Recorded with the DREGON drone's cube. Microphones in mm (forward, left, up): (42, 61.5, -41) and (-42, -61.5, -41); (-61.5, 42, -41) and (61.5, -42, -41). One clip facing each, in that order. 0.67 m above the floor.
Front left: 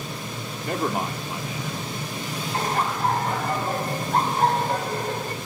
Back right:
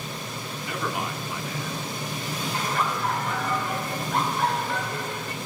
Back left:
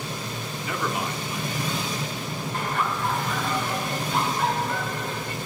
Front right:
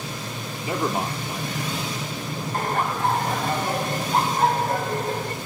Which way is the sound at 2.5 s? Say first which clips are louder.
Front left 3 dB, front right 3 dB; 10° left.